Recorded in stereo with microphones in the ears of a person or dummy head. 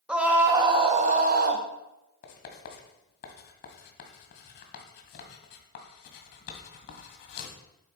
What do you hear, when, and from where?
0.1 s a scream: centre (ahead or behind), 1.3 m; by 1.6 s 55° right (ahead or behind), 1.3 m
2.2 s writing: 55° left (ahead or behind), 1.8 m